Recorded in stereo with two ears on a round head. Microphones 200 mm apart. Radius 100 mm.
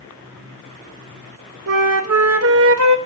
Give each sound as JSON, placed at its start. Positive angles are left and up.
{"t": 1.7, "sound": "a flute", "side_deg": -65, "distance_m": 1.1}